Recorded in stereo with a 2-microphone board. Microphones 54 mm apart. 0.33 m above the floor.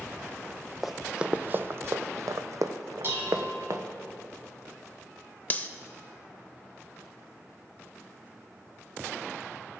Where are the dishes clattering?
45° right (ahead or behind), 1.7 m.